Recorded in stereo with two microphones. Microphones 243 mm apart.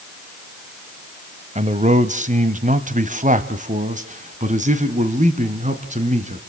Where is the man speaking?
30° right (ahead or behind), 1.3 m.